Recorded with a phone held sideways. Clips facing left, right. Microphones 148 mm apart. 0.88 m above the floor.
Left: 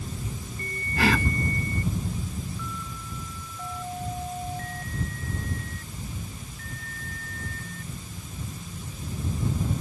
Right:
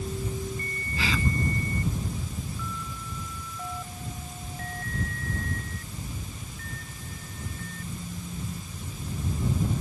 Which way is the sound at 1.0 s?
60° left (ahead or behind).